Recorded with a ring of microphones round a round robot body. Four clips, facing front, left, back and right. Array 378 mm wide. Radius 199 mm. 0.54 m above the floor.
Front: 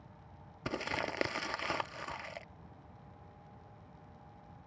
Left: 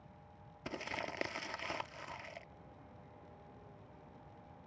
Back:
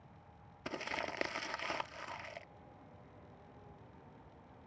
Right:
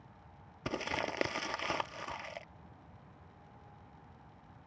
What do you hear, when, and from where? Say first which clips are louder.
0.7 s crumpling: right 6 dB, front 4 dB; 50° right